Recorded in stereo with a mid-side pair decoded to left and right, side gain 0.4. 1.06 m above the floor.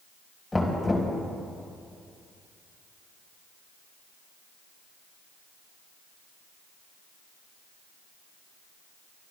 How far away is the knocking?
About 4.5 m.